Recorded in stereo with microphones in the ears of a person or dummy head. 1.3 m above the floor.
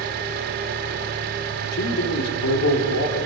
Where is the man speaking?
90° left, 3 m.